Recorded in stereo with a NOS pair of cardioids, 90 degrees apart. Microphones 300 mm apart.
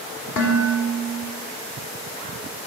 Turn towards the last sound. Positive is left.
turn(degrees=60)